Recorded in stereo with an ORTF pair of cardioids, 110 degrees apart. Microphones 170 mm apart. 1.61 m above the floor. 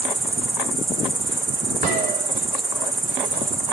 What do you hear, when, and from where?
0.0 s an insect: 10° right, 0.9 m
1.8 s a gunshot: 55° right, 6.5 m